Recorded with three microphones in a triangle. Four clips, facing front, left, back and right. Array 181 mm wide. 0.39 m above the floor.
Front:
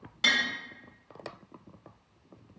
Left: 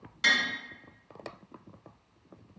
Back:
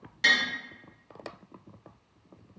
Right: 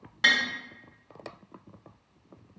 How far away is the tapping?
About 0.8 m.